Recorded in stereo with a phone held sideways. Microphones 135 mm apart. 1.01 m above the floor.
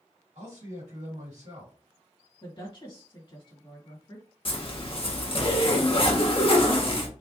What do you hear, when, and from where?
0.3 s a man speaking: 70° right (ahead or behind), 2 m
2.4 s a woman speaking: 45° left (ahead or behind), 1.8 m
4.5 s a zipper: 45° left (ahead or behind), 0.9 m